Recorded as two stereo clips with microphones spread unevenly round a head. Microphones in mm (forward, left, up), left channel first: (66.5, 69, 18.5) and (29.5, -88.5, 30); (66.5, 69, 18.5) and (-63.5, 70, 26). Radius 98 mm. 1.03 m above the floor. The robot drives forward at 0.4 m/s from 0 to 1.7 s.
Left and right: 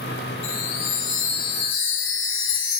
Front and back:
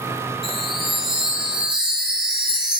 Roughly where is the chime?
Left.